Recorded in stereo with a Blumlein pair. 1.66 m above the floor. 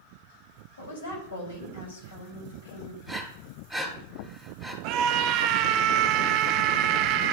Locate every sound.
0.8 s a woman speaking: 65° left, 3.5 m
3.0 s breathing: 5° left, 2 m
4.8 s a scream: 40° right, 0.7 m